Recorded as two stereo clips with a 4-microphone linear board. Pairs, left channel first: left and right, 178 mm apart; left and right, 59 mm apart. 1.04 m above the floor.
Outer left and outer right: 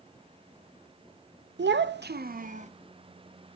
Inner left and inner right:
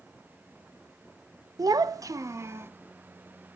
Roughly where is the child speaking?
Right.